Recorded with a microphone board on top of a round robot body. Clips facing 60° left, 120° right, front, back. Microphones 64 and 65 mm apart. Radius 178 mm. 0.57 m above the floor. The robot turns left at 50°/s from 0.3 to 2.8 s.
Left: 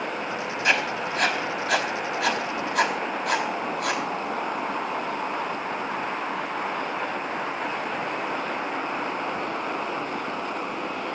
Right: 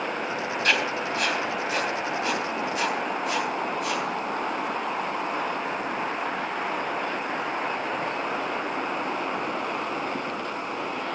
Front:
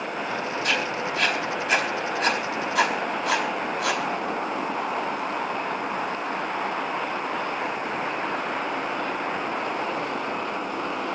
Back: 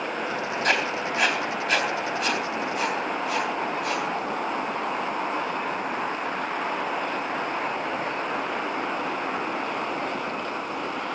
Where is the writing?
135° left, 4 m; by 4.0 s 30° left, 4 m.